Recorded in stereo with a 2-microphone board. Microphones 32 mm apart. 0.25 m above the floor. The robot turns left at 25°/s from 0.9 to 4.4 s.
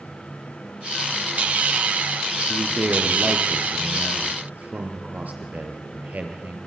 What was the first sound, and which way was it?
A man speaking, 65° right.